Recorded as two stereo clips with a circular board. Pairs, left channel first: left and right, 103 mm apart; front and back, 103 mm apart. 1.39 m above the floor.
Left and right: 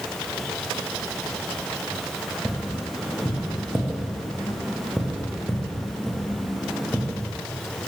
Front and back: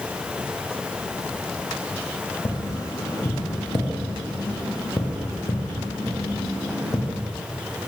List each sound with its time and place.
2.5 s tapping: 10° right, 0.8 m